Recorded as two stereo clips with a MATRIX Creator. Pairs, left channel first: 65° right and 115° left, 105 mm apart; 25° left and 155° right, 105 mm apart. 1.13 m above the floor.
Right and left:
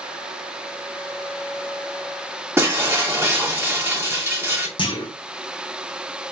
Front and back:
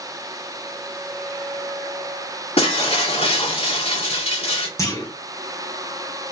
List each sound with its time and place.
2.6 s breaking glass: 45° left, 1.8 m
4.8 s a clunk: 35° right, 1.2 m